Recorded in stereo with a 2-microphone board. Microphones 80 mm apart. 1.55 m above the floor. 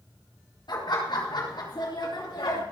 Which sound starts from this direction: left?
Laughter, at 0.7 s.